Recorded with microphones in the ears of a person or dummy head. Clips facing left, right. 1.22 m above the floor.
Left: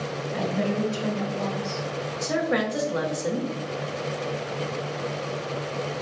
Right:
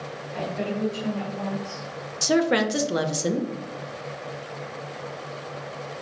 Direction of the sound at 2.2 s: 40° right (ahead or behind).